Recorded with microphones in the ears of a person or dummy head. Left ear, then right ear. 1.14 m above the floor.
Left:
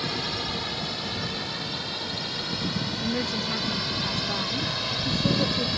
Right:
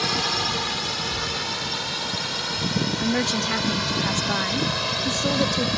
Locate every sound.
0.0 s a drone: 35° right (ahead or behind); by 5.8 s 25° right (ahead or behind)
3.0 s a woman speaking: 35° right (ahead or behind)